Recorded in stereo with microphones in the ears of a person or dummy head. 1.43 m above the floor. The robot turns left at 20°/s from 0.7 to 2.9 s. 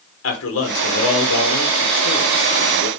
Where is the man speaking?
105° left, 1.2 m; by 2.9 s 60° left, 1.2 m.